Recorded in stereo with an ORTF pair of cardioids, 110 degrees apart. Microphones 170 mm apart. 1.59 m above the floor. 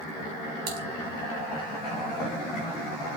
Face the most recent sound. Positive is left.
turn(degrees=-70)